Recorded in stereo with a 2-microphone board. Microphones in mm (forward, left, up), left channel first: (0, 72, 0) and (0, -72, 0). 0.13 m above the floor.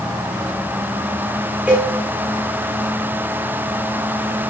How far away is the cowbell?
About 3 m.